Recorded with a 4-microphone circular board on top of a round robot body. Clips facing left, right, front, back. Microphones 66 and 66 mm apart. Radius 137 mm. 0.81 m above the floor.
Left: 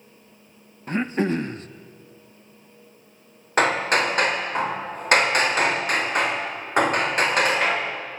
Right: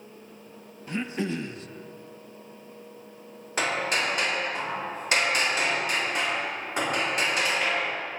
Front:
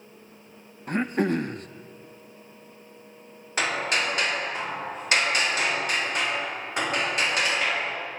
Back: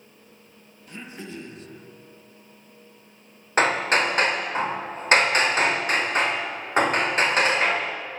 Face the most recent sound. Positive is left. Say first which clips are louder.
# left 7 dB, back 6 dB
turn(degrees=130)